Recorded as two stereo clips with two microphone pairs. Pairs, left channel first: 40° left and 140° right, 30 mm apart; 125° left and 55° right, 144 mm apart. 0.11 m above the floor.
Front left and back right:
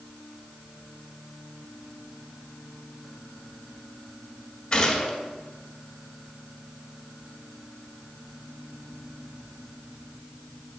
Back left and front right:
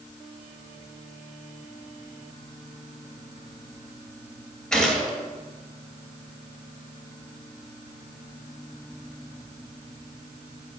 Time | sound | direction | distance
4.7 | a gunshot | 45° left | 1.7 m